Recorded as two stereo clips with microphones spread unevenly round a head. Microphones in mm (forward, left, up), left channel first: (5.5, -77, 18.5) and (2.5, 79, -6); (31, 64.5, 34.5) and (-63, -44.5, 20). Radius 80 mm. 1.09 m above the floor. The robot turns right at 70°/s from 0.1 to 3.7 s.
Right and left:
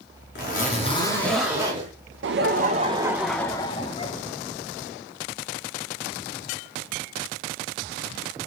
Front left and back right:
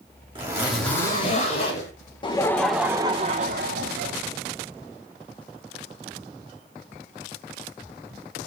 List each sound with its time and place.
0.3 s a zipper: 70° right, 4 m; by 1.9 s 40° left, 4 m
2.2 s laughter: 105° left, 0.6 m; by 4.1 s 150° right, 0.6 m